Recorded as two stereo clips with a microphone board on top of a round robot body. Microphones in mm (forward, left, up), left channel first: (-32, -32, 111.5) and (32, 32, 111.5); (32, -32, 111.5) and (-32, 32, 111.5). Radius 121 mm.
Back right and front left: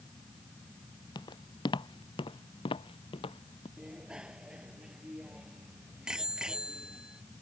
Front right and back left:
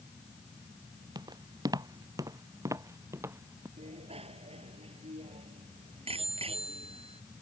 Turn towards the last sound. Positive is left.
turn(degrees=125)